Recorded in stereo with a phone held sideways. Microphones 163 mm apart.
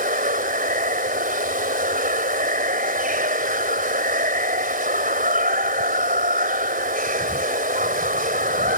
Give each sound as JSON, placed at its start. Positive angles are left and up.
{"t": 0.0, "sound": "running water", "side_deg": -60}